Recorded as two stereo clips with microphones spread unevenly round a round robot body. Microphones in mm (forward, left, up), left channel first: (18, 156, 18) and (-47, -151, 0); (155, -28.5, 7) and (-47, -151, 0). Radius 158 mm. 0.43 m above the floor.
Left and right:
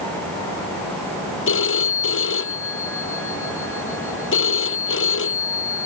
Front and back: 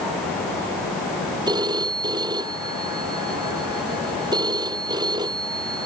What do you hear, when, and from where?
1.5 s a phone ringing: 130° left